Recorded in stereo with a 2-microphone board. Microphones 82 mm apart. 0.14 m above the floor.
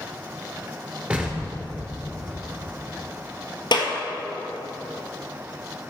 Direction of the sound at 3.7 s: 65° left (ahead or behind).